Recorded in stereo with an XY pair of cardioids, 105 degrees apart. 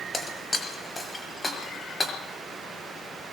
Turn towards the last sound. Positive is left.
turn(degrees=20)